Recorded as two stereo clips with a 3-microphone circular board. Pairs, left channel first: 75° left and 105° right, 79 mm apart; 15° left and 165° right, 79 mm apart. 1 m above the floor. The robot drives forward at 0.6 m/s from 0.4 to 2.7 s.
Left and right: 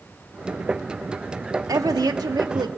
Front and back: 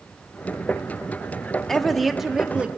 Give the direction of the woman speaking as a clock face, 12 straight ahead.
2 o'clock.